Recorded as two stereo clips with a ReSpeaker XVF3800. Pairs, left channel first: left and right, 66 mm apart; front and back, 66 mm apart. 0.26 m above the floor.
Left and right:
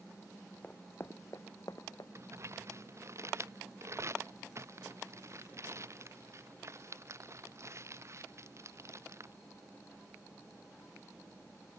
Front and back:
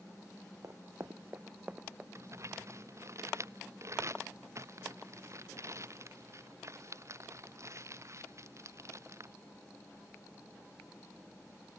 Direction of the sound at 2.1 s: 135° right.